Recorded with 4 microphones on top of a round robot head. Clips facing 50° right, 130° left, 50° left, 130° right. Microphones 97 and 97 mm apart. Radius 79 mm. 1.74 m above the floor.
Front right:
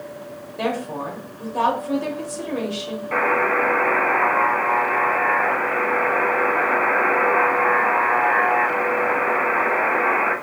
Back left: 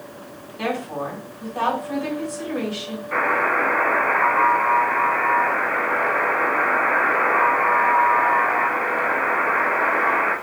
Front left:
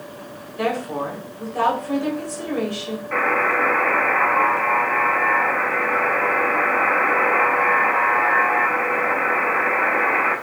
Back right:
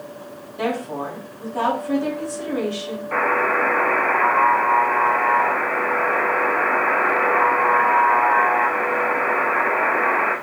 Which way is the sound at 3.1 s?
80° right.